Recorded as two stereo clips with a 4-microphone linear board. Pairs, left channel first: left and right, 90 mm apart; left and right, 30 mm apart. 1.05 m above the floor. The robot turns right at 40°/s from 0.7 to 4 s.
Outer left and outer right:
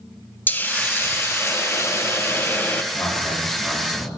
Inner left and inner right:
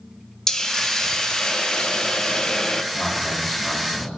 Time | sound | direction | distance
0.5 | a hiss | 20° left (ahead or behind) | 0.5 m
2.9 | a man speaking | 155° left | 4 m